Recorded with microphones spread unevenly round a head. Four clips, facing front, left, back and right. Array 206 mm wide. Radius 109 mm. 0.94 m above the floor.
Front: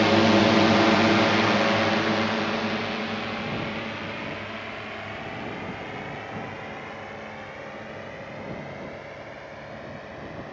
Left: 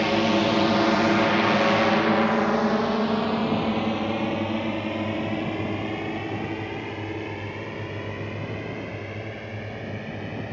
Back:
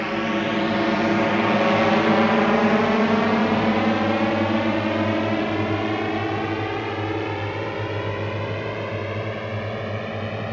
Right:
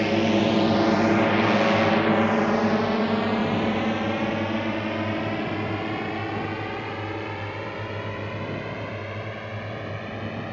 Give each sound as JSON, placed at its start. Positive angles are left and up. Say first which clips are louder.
{"t": 0.0, "sound": "a drone", "louder": "even, front 5 dB", "azimuth_deg": 0}